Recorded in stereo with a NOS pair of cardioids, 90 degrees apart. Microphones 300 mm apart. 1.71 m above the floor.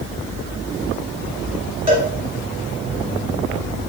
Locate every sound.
1.9 s a cowbell: 20° right, 1.7 m